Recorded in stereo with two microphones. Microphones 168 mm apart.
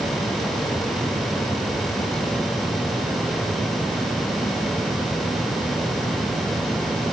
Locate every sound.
Only background noise.